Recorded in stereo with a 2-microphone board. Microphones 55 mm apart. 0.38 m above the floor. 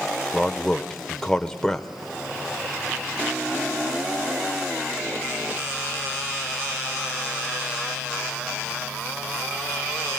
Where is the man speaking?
10° left (ahead or behind), 0.9 m.